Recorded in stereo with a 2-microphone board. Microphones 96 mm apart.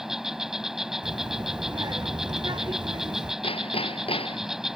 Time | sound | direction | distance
0.0 | an insect | 5° right (ahead or behind) | ?
1.0 | a child speaking | 50° right (ahead or behind) | ?
3.4 | hammering | 85° left | ?